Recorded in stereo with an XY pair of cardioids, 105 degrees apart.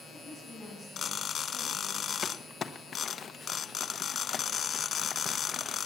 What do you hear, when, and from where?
0.1 s a woman speaking: 5° left, 7 m; by 2.1 s 10° right, 7.5 m
2.2 s crumpling: 45° left, 1.0 m